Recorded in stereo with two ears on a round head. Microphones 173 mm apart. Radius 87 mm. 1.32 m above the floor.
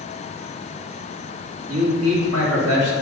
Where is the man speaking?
90° right, 2.5 m; by 2.9 s 60° right (ahead or behind), 2.5 m.